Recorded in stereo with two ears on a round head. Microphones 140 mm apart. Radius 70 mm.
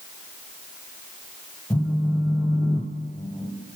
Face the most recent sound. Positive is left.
turn(degrees=10)  # may be behind; listen again after turning